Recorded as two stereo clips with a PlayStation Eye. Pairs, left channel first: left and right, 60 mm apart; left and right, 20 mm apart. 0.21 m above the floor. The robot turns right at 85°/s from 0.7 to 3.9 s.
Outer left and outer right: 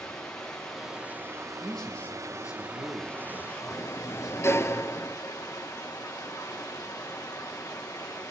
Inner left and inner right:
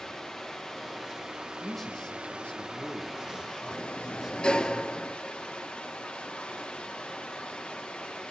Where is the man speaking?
5° right, 4.5 m; by 4.7 s 170° right, 4.5 m.